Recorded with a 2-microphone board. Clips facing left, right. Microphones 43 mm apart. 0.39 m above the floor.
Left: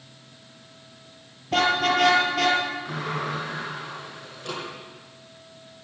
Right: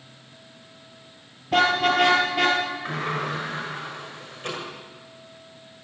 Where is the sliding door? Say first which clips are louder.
Right 2 dB; 50° right (ahead or behind), 6.5 m.